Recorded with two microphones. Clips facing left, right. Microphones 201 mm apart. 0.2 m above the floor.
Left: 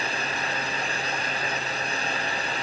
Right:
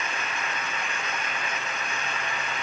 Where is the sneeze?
I don't hear a sneeze.